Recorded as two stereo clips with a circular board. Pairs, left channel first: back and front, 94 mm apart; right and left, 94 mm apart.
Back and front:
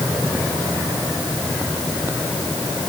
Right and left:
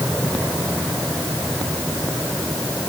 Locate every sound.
Only background noise.